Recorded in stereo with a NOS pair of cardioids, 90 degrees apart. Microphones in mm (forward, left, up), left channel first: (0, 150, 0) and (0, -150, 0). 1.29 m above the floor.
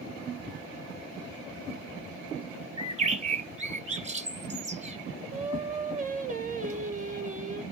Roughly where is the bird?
Ahead right.